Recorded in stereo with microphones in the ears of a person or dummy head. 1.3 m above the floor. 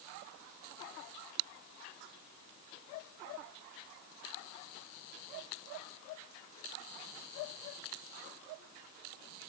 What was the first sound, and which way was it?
Only background noise.